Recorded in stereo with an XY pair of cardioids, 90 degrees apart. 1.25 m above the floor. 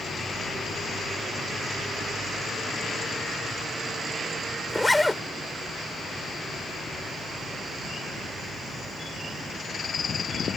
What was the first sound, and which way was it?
A zipper, 10° left.